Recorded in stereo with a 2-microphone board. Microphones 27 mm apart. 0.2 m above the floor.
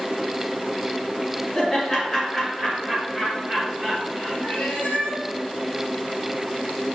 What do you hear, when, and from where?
1.6 s laughter: 15° left (ahead or behind), 2.5 m; by 4.3 s 10° left (ahead or behind), 3.5 m
4.4 s a cat meowing: 70° left (ahead or behind), 2 m